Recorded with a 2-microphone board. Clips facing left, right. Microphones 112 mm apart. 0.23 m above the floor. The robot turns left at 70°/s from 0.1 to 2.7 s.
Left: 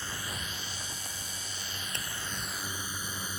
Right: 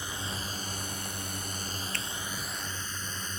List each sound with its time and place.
0.0 s a drone: 15° right (ahead or behind); by 3.4 s 10° left (ahead or behind)
1.9 s a finger snap: 20° left (ahead or behind); by 2.0 s 25° left (ahead or behind)